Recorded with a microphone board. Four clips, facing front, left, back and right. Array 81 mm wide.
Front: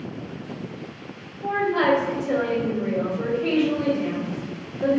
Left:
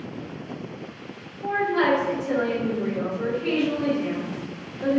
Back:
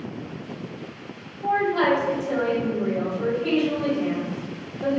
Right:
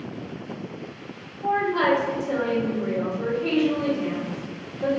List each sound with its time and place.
1.4 s a woman speaking: 20° left, 2.0 m